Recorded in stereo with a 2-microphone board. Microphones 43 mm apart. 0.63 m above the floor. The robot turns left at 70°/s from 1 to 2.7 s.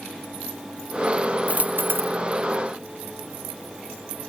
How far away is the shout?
I don't hear a shout.